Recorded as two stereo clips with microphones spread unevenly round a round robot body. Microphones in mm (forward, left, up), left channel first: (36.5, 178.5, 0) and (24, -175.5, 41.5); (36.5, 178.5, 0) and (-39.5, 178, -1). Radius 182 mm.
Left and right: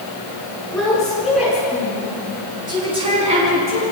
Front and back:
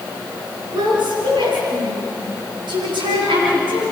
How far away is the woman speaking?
About 8.5 m.